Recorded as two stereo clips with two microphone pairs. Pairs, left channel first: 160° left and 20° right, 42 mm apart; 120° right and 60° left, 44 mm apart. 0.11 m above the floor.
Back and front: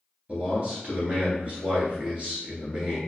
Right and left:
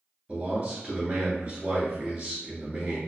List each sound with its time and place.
0.3 s a man speaking: 15° left, 1.4 m